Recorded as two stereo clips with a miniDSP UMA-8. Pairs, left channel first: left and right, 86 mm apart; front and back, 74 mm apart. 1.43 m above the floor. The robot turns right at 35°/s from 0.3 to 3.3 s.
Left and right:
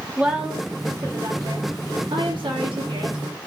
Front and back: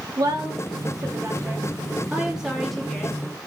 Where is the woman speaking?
170° right, 3 m; by 3.2 s 70° right, 3 m.